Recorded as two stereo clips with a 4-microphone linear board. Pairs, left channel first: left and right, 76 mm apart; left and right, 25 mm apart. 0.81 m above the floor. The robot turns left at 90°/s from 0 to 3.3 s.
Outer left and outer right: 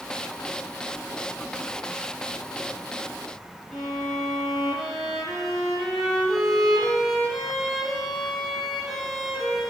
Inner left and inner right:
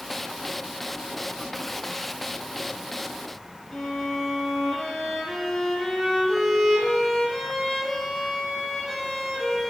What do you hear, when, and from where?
3.7 s a violin: centre (ahead or behind), 3.5 m